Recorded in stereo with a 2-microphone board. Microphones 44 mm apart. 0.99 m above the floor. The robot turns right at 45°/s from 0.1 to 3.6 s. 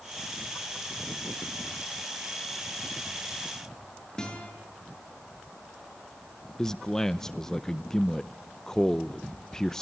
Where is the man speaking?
15° left (ahead or behind), 0.6 m.